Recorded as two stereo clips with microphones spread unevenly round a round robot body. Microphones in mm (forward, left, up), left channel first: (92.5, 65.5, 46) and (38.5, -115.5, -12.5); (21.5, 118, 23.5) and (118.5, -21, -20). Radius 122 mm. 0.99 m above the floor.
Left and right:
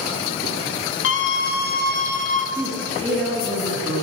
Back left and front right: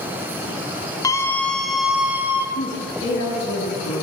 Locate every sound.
1.0 s a scream: 50° left, 1.2 m; by 2.5 s 20° left, 2.0 m
2.5 s a woman speaking: 165° left, 1.5 m